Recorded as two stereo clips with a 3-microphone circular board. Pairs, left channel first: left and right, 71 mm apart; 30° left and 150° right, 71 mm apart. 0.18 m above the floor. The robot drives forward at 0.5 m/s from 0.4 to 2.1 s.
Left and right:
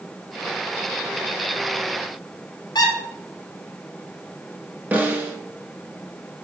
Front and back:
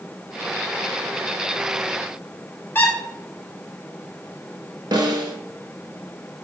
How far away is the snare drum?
About 0.6 m.